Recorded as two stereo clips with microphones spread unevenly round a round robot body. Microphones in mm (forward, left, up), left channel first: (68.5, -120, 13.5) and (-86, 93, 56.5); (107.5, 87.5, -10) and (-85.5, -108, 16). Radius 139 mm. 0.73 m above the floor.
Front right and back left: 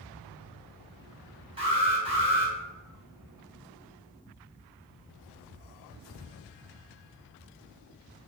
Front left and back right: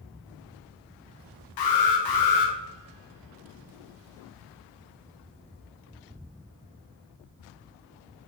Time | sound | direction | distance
1.6 | an alarm | 50° left | 0.6 m